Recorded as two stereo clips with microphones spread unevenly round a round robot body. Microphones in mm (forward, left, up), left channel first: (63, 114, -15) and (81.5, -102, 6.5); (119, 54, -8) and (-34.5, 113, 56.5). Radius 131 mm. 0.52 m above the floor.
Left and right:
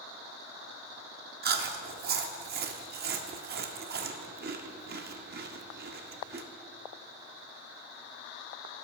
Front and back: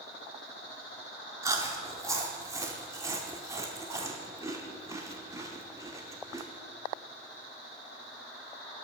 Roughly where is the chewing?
Right.